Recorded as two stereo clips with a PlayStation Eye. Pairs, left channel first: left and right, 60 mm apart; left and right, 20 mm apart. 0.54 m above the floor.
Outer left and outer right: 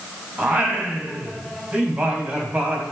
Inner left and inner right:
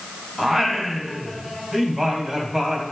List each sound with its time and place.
0.4 s singing: 20° right (ahead or behind), 2 m